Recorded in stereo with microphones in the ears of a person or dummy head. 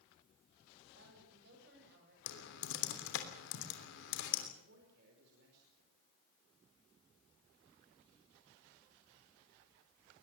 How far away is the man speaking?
About 5 m.